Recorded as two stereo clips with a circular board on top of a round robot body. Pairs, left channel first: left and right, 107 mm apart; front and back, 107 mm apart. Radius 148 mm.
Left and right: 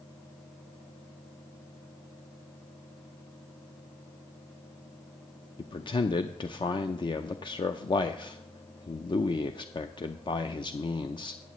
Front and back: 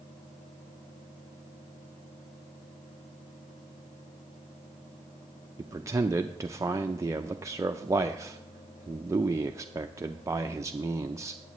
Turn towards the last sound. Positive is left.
turn(degrees=125)